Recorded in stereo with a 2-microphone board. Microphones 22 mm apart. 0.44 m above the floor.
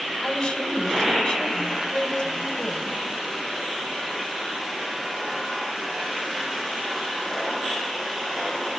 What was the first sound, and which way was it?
A woman speaking, 35° left (ahead or behind).